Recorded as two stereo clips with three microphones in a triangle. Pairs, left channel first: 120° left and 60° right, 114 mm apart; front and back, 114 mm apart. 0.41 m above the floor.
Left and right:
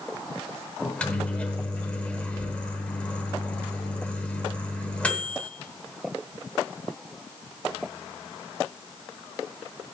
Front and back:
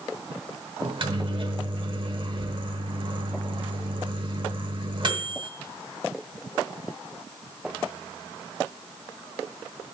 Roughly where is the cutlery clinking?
No cutlery clinking in this recording.